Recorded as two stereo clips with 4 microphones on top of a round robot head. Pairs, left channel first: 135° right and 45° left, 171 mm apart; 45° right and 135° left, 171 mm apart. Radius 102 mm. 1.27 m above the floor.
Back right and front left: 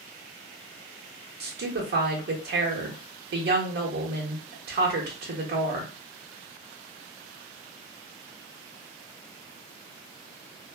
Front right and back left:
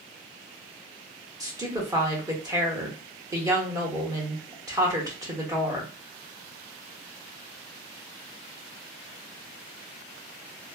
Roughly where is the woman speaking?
Ahead left.